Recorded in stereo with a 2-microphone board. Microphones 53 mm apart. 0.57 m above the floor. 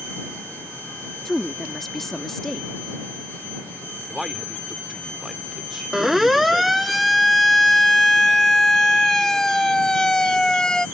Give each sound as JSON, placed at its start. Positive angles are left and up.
{"t": 1.2, "sound": "a woman speaking", "side_deg": 5}
{"t": 4.1, "sound": "a man speaking", "side_deg": -5}
{"t": 5.9, "sound": "a siren", "side_deg": -5}